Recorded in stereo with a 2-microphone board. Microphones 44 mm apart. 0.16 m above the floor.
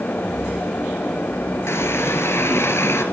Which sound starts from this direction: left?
A running tap, at 1.7 s.